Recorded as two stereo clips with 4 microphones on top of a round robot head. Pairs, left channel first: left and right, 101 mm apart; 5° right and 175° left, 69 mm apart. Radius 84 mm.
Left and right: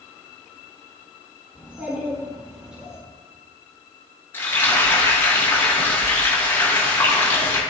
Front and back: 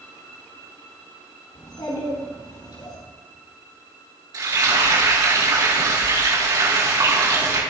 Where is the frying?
155° left, 4.5 m.